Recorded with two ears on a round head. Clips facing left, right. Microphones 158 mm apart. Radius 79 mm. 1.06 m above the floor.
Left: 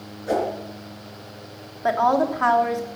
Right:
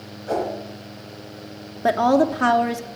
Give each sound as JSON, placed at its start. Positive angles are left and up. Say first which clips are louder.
{"t": 0.3, "sound": "a whoosh", "louder": "left 1 dB", "side_deg": 25, "distance_m": 4.5}
{"t": 1.8, "sound": "a woman speaking", "louder": "right 3 dB", "side_deg": -35, "distance_m": 1.1}